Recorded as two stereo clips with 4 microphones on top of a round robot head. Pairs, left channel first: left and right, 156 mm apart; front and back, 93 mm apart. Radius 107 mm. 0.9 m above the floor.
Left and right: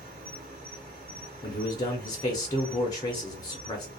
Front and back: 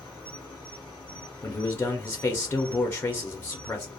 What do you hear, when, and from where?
0.0 s an insect: 70° right, 2.0 m
1.4 s a man speaking: 50° left, 0.6 m